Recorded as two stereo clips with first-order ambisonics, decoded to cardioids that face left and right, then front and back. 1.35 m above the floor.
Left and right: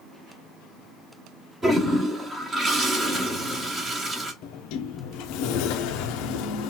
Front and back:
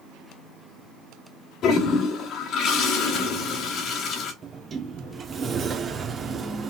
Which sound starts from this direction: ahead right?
A toilet flushing, at 1.6 s.